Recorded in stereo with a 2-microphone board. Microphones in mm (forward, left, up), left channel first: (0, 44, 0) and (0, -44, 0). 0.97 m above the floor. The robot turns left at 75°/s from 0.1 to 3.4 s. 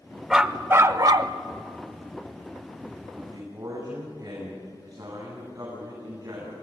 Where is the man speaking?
55° right (ahead or behind), 9.5 m; by 6.5 s 40° right (ahead or behind), 9.5 m.